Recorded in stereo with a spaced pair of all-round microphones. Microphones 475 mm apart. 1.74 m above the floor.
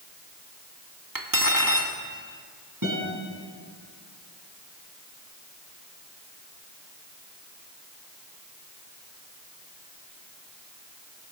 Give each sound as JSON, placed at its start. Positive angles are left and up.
{"t": 1.1, "sound": "cutlery clinking", "side_deg": -45, "distance_m": 2.0}
{"t": 2.8, "sound": "a guitar", "side_deg": -40, "distance_m": 10.0}